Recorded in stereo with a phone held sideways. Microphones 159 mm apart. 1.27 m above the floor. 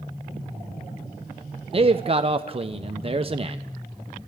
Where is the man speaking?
35° right (ahead or behind), 0.7 m.